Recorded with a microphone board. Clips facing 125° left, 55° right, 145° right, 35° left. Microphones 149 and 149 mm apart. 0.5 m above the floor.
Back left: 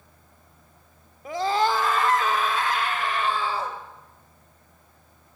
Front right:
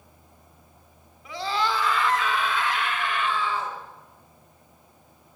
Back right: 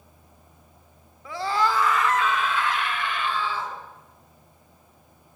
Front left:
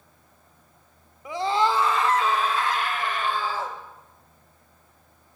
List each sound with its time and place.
1.2 s a scream: 105° left, 1.1 m; by 3.8 s 75° left, 2 m